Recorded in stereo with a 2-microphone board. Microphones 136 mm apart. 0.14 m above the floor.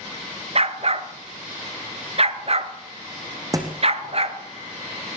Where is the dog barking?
50° right (ahead or behind), 0.9 m.